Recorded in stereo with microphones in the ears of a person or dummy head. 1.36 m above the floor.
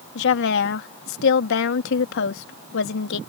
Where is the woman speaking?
70° left (ahead or behind).